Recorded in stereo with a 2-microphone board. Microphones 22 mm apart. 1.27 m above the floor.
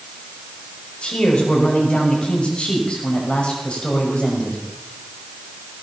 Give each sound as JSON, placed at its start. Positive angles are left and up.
{"t": 1.0, "sound": "a man speaking", "side_deg": 60, "distance_m": 5.5}